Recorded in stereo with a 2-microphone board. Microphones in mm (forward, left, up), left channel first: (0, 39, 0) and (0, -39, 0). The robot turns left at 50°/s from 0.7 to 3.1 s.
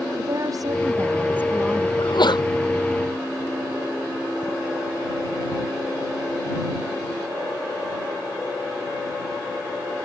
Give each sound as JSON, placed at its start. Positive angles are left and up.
{"t": 0.2, "sound": "a woman speaking", "azimuth_deg": -125}
{"t": 2.0, "sound": "a sneeze", "side_deg": 65}